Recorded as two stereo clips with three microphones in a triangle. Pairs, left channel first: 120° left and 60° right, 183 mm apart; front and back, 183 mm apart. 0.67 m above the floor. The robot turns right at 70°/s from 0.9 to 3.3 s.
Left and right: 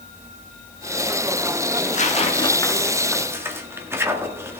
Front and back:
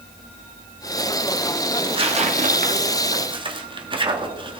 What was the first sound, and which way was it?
Tearing paper, 120° left.